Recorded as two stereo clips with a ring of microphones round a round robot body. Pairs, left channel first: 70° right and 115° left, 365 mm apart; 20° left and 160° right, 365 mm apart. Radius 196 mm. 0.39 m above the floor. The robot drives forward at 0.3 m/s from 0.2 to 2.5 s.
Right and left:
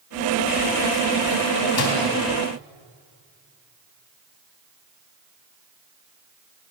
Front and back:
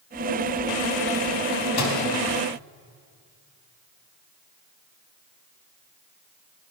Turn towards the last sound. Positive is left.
turn(degrees=-20)